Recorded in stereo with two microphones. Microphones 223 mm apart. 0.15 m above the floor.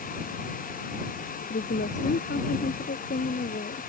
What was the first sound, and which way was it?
A woman speaking, 55° left (ahead or behind).